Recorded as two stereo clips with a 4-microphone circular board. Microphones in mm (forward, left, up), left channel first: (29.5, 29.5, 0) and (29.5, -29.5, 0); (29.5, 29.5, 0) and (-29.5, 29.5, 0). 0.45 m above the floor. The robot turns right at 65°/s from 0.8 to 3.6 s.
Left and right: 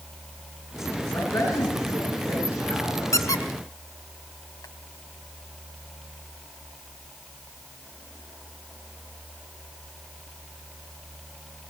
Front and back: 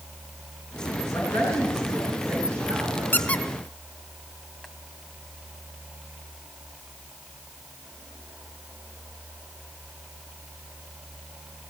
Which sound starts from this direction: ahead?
A woman speaking, at 1.1 s.